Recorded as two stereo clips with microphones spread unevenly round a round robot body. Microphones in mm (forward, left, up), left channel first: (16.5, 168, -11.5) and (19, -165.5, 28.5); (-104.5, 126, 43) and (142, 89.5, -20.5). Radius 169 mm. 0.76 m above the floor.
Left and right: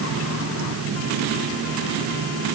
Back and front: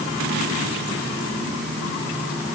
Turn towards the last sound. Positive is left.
No sound to turn to.